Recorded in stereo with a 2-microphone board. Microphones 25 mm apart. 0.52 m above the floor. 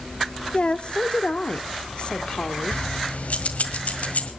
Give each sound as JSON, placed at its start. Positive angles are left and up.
{"t": 0.5, "sound": "a woman speaking", "side_deg": 45, "distance_m": 1.1}
{"t": 2.7, "sound": "keys jangling", "side_deg": 70, "distance_m": 1.8}